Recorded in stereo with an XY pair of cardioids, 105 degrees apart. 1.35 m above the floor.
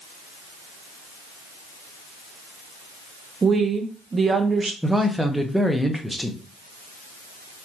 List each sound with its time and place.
3.4 s a woman speaking: 35° right, 0.8 m
4.8 s a man speaking: 5° right, 0.8 m